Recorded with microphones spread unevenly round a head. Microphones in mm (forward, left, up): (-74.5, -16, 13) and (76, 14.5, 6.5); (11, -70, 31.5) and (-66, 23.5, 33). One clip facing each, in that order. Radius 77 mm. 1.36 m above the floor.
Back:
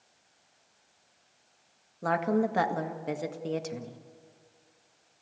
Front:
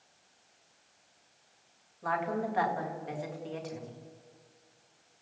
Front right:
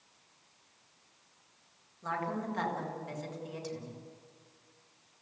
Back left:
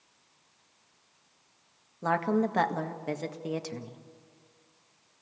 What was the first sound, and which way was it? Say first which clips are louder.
A woman speaking: back 6 dB, back left 9 dB; 155° left.